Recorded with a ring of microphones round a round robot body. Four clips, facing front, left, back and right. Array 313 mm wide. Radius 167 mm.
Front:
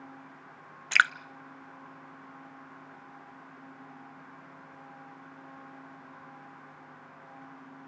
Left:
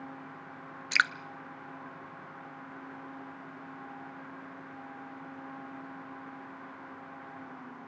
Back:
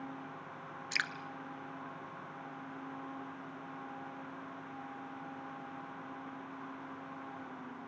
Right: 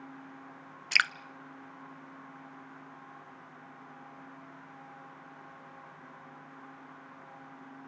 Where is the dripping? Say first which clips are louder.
Left 3 dB, front 15 dB; 10° right, 0.6 m.